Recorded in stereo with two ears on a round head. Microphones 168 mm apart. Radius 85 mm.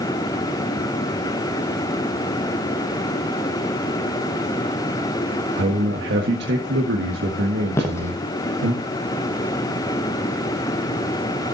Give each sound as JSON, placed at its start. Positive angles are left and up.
{"t": 5.6, "sound": "a man speaking", "side_deg": -60, "distance_m": 1.6}
{"t": 7.7, "sound": "footsteps", "side_deg": 15, "distance_m": 2.5}